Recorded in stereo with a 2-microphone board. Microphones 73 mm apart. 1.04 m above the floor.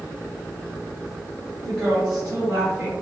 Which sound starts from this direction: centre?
A woman speaking, at 1.6 s.